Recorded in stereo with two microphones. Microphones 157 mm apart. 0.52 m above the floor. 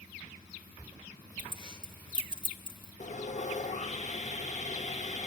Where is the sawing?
50° left (ahead or behind), 0.6 m.